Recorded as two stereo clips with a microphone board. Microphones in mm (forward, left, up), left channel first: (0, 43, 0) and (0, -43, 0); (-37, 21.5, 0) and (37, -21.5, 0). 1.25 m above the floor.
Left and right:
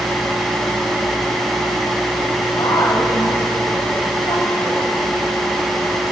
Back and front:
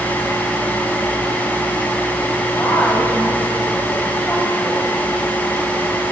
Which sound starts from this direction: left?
A woman speaking, at 2.6 s.